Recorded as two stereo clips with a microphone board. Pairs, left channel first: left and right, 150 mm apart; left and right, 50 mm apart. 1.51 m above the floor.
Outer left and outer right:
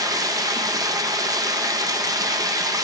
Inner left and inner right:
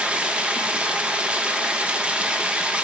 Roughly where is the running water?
Right.